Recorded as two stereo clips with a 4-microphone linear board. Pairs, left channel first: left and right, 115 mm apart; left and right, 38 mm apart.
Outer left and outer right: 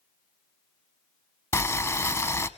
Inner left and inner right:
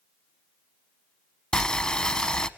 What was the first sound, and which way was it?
Boiling, 25° left (ahead or behind).